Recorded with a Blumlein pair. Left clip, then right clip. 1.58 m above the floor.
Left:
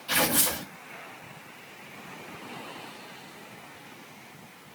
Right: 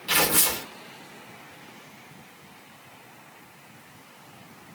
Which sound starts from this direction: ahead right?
Tearing paper, at 0.1 s.